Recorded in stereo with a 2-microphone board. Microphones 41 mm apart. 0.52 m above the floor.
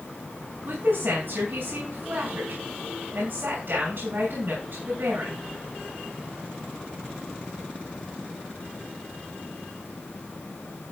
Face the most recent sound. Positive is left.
turn(degrees=-60)  # may be behind; listen again after turning